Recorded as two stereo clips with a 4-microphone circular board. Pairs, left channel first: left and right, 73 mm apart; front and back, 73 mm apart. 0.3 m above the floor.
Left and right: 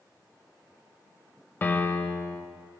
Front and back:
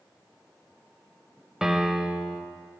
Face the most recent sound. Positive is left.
turn(degrees=100)